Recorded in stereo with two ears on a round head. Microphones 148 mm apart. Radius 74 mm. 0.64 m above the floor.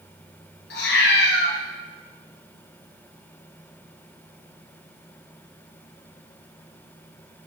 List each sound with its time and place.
0.7 s a cat meowing: 70° left (ahead or behind), 2.5 m